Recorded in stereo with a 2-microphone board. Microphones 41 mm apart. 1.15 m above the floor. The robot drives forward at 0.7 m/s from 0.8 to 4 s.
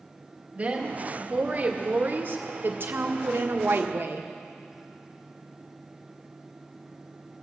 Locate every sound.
0.6 s a woman speaking: 35° right (ahead or behind), 2.5 m; by 4.3 s 65° right (ahead or behind), 1.3 m